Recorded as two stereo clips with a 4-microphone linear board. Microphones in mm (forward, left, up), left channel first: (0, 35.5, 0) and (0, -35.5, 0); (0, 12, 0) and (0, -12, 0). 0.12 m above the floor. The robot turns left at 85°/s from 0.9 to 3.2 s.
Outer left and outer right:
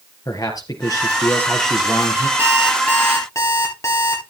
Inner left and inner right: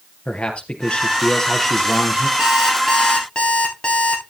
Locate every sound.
0.2 s a man speaking: 70° left, 3.5 m; by 2.3 s 50° right, 3.5 m
2.4 s an alarm clock: 150° right, 9.5 m; by 4.2 s 140° left, 9.5 m